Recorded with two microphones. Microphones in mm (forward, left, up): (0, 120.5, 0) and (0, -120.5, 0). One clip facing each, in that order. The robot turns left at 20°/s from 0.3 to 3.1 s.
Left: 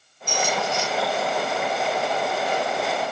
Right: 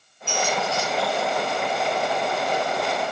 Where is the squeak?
40° left (ahead or behind), 8 m; by 0.9 s 30° left (ahead or behind), 8 m.